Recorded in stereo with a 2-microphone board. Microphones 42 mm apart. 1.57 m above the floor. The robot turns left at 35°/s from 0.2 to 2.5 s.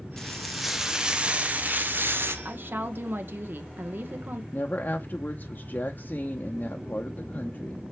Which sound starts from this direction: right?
A woman speaking, at 2.5 s.